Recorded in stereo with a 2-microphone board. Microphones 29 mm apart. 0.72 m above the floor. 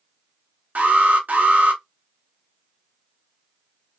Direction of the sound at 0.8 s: 70° right (ahead or behind).